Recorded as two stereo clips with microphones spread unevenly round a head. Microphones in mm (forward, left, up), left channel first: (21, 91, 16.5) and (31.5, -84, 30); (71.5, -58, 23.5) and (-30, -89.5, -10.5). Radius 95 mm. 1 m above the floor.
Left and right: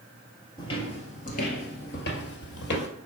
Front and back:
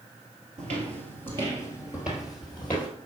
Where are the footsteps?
160° left, 1.5 m; by 2.9 s 80° left, 1.8 m.